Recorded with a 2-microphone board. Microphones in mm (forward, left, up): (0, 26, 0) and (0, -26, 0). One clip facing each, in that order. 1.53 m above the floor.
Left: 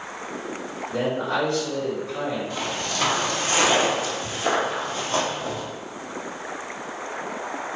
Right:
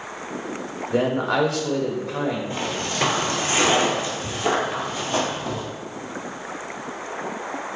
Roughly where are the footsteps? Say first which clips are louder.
Right 1 dB; right.